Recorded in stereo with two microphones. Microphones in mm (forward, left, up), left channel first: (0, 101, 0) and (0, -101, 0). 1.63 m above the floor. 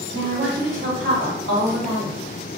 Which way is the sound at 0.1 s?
80° right.